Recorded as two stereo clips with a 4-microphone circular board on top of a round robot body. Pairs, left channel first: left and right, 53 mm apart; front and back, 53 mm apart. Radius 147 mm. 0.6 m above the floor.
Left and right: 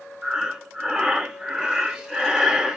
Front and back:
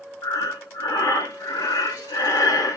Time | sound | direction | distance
0.2 | breathing | 15° right | 0.8 m